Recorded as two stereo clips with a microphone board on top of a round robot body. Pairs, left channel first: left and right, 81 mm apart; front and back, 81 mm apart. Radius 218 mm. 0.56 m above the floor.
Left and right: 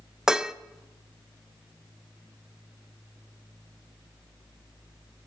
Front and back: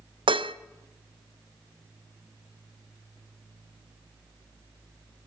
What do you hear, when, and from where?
0.3 s dishes clattering: 175° right, 0.8 m